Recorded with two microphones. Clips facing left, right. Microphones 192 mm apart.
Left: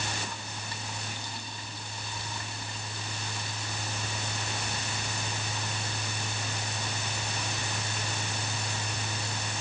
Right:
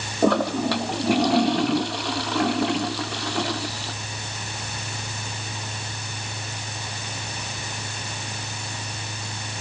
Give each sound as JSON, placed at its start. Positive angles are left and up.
{"t": 0.2, "sound": "a toilet flushing", "side_deg": -80}